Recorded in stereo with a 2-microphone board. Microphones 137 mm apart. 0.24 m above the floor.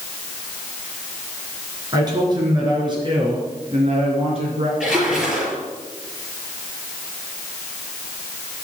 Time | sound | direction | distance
1.9 | a man speaking | 30° right (ahead or behind) | 4 m
4.8 | a splash | 5° right (ahead or behind) | 6.5 m